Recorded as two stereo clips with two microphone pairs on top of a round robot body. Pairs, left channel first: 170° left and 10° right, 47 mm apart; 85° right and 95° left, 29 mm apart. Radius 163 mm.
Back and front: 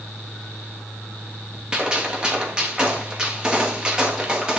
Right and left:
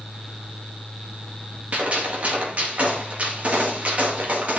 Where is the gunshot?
50° left, 2.5 m.